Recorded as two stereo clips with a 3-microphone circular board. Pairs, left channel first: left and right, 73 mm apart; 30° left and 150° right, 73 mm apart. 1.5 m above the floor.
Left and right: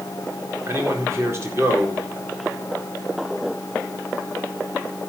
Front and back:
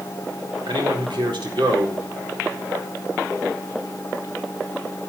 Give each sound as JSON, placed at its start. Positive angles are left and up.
{"t": 0.7, "sound": "a man speaking", "azimuth_deg": -145, "distance_m": 4.0}